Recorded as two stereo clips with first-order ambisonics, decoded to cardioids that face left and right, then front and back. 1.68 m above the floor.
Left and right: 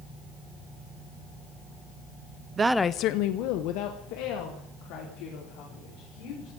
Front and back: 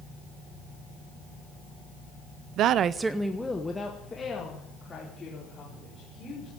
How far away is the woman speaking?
About 0.6 m.